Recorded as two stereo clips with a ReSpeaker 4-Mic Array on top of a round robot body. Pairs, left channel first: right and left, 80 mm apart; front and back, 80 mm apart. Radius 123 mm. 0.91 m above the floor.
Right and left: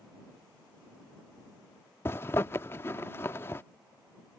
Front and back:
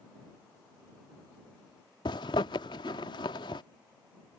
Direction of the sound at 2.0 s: 30° right.